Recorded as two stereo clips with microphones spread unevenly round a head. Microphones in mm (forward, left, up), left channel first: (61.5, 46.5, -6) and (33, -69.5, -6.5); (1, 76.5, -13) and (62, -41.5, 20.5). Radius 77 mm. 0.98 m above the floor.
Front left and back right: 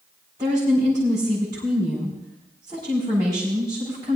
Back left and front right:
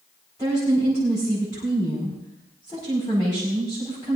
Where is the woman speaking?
170° right, 5.5 m.